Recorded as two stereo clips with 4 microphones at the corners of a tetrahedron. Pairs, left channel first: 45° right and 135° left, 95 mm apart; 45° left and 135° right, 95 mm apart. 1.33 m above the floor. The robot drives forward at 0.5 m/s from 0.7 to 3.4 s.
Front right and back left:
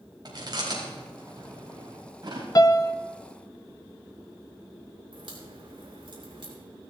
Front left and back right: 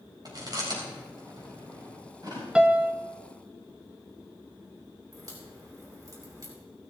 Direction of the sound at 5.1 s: 170° left.